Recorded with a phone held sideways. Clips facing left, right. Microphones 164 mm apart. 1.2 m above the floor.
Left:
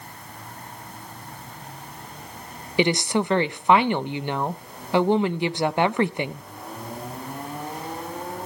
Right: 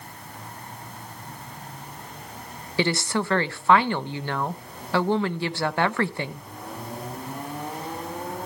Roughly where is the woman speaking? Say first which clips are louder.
Left 3 dB; centre.